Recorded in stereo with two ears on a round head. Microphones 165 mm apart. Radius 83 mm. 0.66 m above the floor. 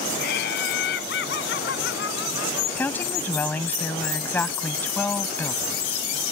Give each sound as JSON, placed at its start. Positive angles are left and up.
{"t": 0.2, "sound": "laughter", "side_deg": 60}
{"t": 2.8, "sound": "a woman speaking", "side_deg": 10}